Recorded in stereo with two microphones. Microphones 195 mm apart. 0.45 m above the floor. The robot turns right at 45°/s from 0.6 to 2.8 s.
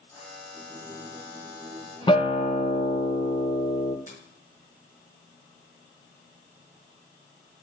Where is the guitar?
30° left, 1.0 m; by 4.0 s 65° left, 1.0 m.